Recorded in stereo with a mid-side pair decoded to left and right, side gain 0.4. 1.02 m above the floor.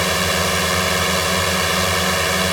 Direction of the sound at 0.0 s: 5° right.